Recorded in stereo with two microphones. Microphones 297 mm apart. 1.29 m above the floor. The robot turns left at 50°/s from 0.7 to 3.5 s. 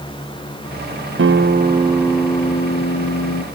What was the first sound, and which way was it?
A guitar, 135° right.